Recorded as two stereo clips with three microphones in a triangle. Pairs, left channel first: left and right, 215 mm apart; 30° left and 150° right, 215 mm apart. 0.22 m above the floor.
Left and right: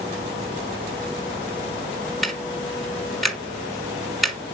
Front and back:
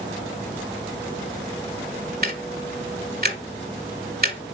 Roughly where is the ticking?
Behind.